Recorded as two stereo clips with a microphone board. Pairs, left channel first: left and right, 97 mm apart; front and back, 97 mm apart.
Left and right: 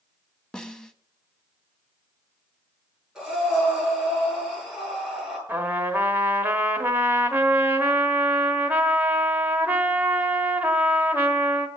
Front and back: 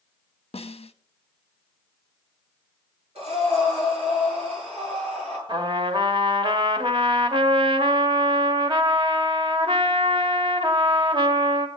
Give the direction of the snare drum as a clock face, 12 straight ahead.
12 o'clock.